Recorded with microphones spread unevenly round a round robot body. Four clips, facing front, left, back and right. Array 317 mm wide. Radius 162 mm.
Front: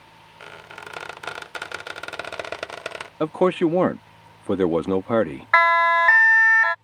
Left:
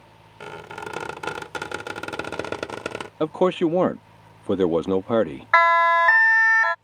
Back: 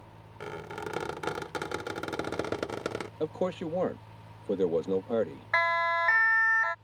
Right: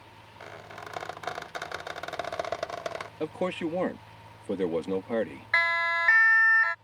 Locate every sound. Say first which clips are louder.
0.4 s a squeak: left 8 dB, back 3 dB; 130° left
3.2 s a man speaking: left 11 dB, front 13 dB; 30° left
5.5 s a siren: left 12 dB, front 10 dB; 45° left